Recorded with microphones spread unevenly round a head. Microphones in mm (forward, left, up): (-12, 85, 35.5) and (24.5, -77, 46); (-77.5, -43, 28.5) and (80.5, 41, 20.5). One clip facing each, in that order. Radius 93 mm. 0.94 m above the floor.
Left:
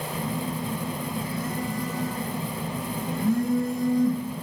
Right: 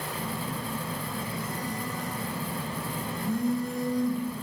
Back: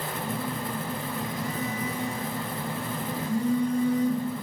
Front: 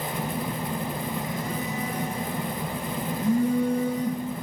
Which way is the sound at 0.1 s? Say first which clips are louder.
Left 6 dB, front 1 dB; 75° left.